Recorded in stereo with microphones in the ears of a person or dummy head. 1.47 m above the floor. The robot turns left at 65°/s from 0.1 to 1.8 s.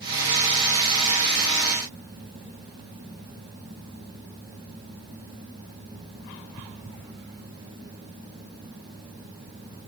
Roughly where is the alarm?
No alarm in this recording.